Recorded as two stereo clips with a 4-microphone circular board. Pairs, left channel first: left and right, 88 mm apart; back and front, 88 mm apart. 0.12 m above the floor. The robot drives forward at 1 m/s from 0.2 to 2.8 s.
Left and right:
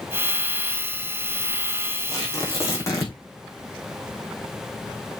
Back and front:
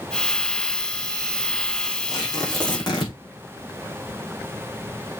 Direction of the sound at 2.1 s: 140° left.